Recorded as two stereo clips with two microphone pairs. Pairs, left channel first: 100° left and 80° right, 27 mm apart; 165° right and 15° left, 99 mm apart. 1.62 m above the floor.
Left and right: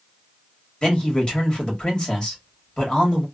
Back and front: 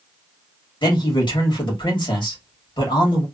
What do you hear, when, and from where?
0.8 s a man speaking: 160° left, 1.7 m